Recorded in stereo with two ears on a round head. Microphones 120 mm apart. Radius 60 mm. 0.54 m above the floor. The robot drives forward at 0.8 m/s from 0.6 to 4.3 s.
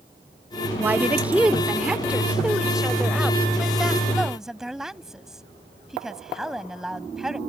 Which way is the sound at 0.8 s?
10° right (ahead or behind).